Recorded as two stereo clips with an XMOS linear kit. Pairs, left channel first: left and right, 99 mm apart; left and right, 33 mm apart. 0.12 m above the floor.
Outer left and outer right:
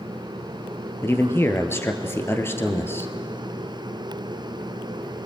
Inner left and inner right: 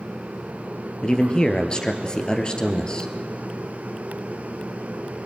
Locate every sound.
1.0 s a man speaking: 25° left (ahead or behind), 2.0 m